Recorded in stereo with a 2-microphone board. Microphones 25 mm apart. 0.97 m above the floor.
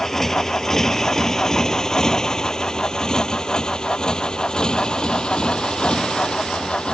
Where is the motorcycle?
15° left (ahead or behind); by 6.9 s 45° left (ahead or behind).